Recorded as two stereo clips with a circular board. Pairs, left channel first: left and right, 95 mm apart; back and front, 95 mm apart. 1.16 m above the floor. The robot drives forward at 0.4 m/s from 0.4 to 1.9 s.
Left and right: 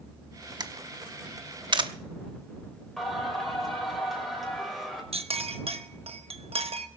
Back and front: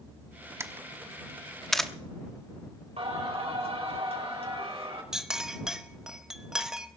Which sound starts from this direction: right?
A clink, at 5.1 s.